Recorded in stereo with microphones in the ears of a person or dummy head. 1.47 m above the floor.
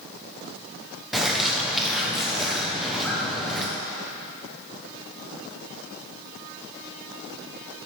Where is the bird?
5° right (ahead or behind), 0.6 m.